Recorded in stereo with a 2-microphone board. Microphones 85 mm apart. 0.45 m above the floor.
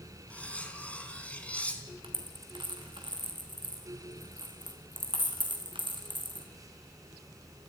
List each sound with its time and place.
0.3 s cutlery clinking: 15° left (ahead or behind), 3 m
2.0 s a dropped coin: 75° right (ahead or behind), 3.5 m